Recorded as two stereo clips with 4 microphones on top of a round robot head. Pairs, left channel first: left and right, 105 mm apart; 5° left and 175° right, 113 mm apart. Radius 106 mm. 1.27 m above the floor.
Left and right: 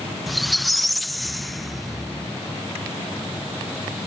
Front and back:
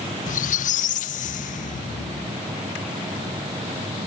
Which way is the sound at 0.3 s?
Straight ahead.